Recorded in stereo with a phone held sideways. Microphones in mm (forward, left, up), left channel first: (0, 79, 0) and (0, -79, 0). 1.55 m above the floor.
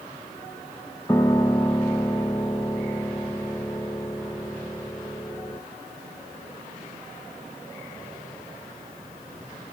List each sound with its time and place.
1.1 s a piano: 20° left (ahead or behind), 1.1 m